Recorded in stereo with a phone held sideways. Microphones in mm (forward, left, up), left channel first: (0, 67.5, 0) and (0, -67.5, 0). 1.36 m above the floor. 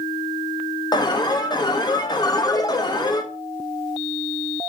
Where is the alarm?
30° left (ahead or behind), 1.4 m.